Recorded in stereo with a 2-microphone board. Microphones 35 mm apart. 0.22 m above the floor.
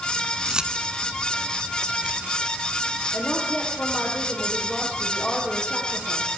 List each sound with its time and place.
0.5 s keys jangling: 20° right (ahead or behind), 1.7 m; by 4.1 s 35° right (ahead or behind), 5 m
3.1 s a woman speaking: 35° left (ahead or behind), 8.5 m